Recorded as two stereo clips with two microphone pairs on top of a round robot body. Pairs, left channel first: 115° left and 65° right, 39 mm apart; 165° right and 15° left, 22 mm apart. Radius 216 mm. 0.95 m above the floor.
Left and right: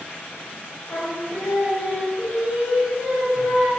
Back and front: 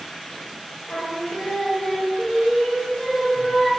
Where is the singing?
160° left, 0.6 m.